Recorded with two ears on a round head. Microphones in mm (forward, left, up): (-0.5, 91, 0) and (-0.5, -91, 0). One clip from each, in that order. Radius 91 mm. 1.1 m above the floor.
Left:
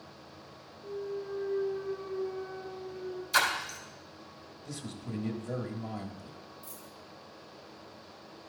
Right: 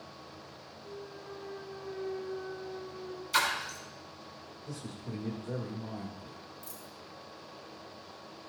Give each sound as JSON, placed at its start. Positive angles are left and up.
{"t": 0.8, "sound": "a clunk", "side_deg": -85, "distance_m": 1.9}
{"t": 3.3, "sound": "a splash", "side_deg": -5, "distance_m": 2.5}
{"t": 4.7, "sound": "a man speaking", "side_deg": 20, "distance_m": 1.4}
{"t": 6.6, "sound": "a dropped coin", "side_deg": -50, "distance_m": 3.5}